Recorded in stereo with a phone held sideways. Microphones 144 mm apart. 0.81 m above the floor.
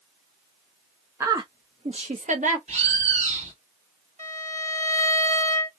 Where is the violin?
55° right (ahead or behind), 2 m.